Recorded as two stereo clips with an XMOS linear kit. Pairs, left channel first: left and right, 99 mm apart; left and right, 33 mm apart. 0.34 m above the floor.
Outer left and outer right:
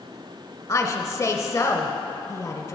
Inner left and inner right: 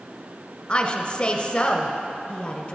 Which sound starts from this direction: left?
A woman speaking, at 0.7 s.